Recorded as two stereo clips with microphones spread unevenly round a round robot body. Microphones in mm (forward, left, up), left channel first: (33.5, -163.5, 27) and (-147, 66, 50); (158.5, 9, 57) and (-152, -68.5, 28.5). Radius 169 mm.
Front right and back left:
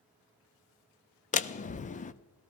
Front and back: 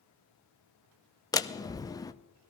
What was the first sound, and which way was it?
A door slam, 65° right.